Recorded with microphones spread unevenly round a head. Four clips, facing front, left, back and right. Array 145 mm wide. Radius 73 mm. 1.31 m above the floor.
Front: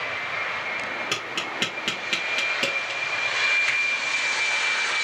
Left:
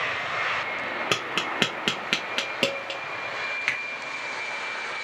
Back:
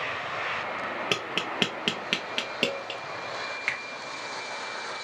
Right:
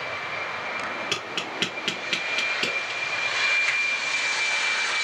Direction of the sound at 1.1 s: 115° left.